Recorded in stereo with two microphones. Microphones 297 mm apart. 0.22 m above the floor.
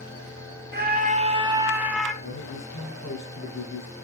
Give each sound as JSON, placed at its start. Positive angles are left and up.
{"t": 0.7, "sound": "a scream", "side_deg": -35, "distance_m": 1.6}
{"t": 2.2, "sound": "a man speaking", "side_deg": 55, "distance_m": 4.0}